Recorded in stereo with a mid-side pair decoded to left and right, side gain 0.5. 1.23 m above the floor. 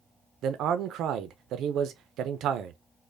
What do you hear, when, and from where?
0.4 s a man speaking: 65° right, 0.5 m